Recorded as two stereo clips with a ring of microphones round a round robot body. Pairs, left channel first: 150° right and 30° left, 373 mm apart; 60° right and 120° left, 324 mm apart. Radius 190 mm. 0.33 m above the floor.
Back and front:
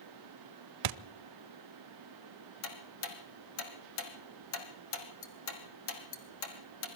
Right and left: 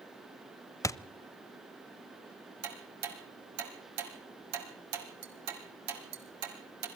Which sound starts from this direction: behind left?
Ticking, at 2.6 s.